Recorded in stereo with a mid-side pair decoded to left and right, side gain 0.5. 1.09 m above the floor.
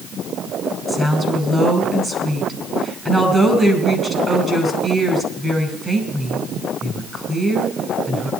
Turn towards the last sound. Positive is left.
turn(degrees=-20)